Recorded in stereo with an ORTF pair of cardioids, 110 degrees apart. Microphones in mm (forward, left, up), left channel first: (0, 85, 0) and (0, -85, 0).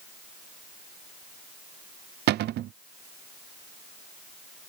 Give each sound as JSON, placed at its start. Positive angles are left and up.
{"t": 2.3, "sound": "a cupboard door", "azimuth_deg": -65}